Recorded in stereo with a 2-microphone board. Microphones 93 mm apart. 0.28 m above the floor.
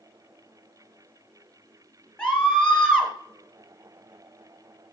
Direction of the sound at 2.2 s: 10° left (ahead or behind).